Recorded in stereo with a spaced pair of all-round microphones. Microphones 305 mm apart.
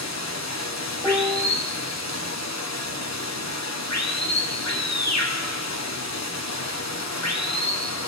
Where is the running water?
60° left (ahead or behind), 1.1 m.